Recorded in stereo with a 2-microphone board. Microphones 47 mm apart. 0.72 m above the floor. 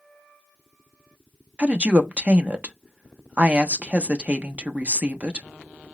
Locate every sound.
1.6 s a woman speaking: 25° right (ahead or behind), 0.6 m